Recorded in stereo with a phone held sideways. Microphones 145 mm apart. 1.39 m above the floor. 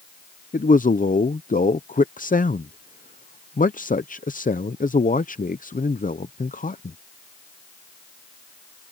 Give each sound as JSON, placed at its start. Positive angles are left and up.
{"t": 0.5, "sound": "a man speaking", "side_deg": 65}